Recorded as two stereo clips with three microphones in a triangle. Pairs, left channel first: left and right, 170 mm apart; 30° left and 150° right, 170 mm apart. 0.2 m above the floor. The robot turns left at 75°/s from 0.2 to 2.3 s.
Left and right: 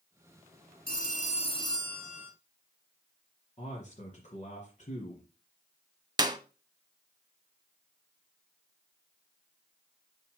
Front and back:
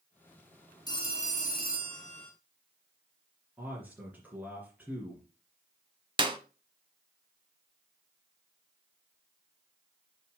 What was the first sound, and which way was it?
A phone ringing, 90° left.